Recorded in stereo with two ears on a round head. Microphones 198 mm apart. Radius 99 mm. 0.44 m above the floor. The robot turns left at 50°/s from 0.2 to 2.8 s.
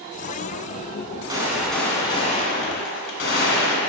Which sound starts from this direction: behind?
A gunshot, at 1.3 s.